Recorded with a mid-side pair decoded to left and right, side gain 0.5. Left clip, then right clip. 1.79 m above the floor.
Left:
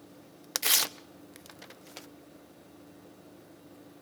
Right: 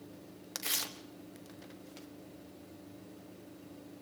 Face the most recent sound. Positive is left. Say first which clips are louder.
# left 9 dB
turn(degrees=55)